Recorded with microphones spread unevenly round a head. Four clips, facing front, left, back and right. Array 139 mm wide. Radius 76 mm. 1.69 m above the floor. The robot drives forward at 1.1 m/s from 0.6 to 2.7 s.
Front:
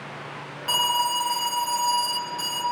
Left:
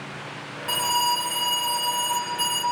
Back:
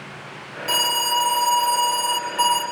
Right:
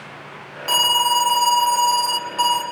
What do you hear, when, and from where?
0.7 s an alarm: 90° right, 2.5 m; by 2.6 s 130° right, 3.5 m